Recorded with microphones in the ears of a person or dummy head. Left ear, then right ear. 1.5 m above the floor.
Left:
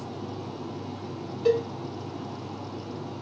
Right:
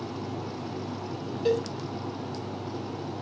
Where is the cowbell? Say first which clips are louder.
Left 3 dB; 5° left (ahead or behind), 0.6 m.